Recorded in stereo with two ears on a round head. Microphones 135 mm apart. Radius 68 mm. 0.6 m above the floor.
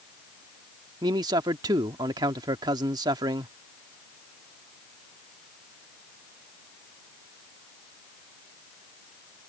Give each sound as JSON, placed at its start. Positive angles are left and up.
{"t": 1.0, "sound": "a man speaking", "side_deg": -25}